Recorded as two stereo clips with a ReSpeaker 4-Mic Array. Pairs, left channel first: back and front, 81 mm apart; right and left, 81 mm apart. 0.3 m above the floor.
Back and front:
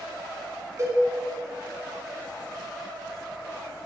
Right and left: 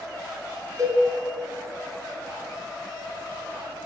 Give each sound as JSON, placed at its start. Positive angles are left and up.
{"t": 0.8, "sound": "a cowbell", "azimuth_deg": 45, "distance_m": 1.1}